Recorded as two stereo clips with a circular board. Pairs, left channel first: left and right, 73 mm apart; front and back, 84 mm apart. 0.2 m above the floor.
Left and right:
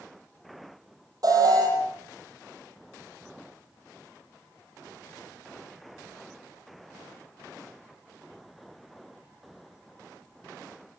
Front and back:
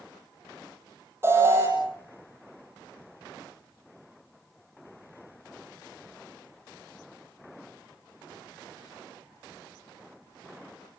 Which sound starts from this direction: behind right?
An alarm, at 1.2 s.